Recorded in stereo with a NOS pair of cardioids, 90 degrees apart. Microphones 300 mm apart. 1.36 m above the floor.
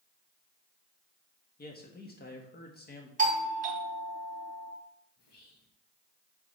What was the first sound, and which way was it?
A man speaking, 35° left.